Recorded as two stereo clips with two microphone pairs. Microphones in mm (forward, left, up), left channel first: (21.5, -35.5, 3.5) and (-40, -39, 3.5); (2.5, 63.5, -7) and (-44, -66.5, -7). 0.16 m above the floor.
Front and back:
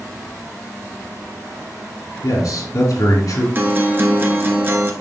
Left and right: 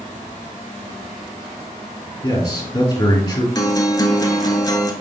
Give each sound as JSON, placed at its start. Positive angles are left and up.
{"t": 2.2, "sound": "a man speaking", "azimuth_deg": 10, "distance_m": 3.0}
{"t": 3.5, "sound": "a guitar", "azimuth_deg": 130, "distance_m": 1.0}